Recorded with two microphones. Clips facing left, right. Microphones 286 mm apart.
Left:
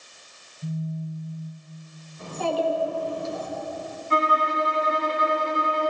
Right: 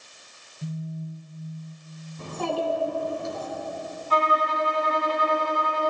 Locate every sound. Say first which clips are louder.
0.6 s a phone buzzing: left 3 dB; 60° right (ahead or behind), 1.3 m
2.2 s a child speaking: left 2 dB; 60° right (ahead or behind), 2.5 m
4.1 s a violin: even; 25° left (ahead or behind), 1.6 m